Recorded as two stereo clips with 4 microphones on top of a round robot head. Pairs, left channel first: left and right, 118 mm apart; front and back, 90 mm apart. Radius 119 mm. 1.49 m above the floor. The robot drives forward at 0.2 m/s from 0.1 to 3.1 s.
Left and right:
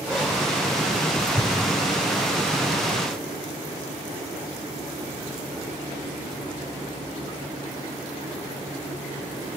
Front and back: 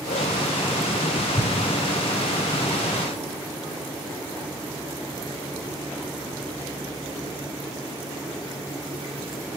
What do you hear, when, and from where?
1.4 s an explosion: 20° left, 0.7 m